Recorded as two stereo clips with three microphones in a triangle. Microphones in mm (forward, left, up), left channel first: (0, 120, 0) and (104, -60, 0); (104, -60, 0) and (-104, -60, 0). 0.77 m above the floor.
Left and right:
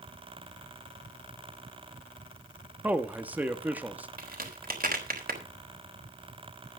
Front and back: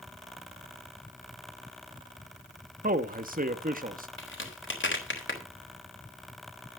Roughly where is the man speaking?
Behind right.